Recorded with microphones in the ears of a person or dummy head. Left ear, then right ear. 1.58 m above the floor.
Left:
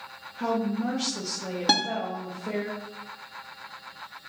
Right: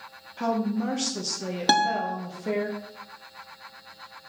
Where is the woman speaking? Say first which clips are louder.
Right 1 dB; 75° right (ahead or behind), 0.6 m.